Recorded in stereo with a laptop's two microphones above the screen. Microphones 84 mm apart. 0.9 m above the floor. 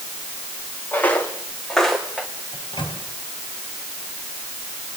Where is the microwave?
75° left (ahead or behind), 4.5 m.